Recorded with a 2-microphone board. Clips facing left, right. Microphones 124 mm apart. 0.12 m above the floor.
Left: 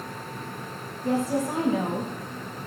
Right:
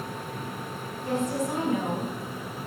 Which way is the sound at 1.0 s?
30° left (ahead or behind).